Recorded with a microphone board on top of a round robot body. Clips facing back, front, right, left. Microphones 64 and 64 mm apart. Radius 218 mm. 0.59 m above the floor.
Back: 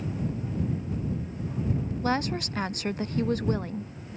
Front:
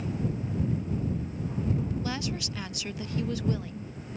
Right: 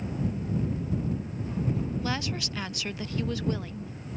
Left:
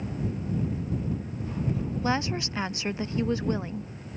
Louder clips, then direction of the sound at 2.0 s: Back 6 dB, left 4 dB; 150° left.